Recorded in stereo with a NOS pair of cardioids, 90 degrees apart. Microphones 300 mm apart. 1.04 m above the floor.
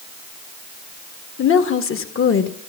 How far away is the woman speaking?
About 1.6 m.